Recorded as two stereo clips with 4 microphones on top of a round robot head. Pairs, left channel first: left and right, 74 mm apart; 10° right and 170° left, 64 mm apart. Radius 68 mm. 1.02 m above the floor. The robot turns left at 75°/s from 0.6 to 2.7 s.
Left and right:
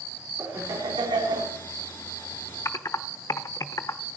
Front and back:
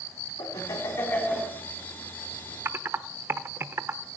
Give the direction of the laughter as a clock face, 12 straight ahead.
1 o'clock.